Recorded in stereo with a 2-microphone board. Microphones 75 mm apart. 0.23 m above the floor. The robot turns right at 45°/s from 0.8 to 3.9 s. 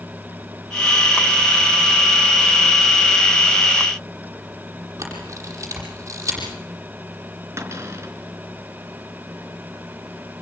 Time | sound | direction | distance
5.0 | a camera shutter | 40° right (ahead or behind) | 9 m
7.6 | a cupboard door | 35° right (ahead or behind) | 3.5 m